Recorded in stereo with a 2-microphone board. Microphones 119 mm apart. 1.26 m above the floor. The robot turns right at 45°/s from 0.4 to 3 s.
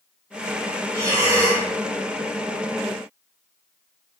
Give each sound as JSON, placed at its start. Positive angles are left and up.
{"t": 0.9, "sound": "breathing", "side_deg": -25, "distance_m": 1.0}